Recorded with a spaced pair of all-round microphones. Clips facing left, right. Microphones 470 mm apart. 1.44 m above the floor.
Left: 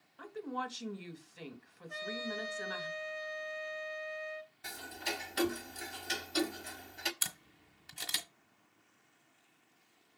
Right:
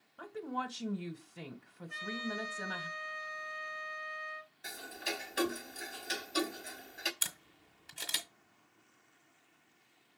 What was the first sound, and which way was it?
A woman speaking, 65° right (ahead or behind).